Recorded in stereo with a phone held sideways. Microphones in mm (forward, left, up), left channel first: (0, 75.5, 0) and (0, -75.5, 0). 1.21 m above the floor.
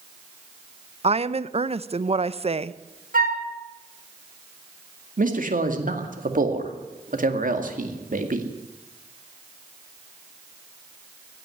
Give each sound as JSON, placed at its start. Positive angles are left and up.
{"t": 1.0, "sound": "a woman speaking", "side_deg": -40, "distance_m": 0.6}
{"t": 3.1, "sound": "a flute", "side_deg": -70, "distance_m": 2.0}
{"t": 5.2, "sound": "a man speaking", "side_deg": -65, "distance_m": 2.0}